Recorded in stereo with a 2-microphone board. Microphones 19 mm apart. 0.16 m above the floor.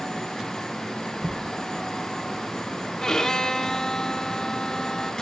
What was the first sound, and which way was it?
Knocking, 65° right (ahead or behind).